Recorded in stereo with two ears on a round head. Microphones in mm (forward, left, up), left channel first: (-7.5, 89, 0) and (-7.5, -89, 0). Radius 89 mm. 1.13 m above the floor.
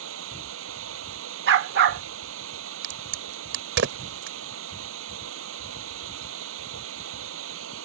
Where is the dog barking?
55° right (ahead or behind).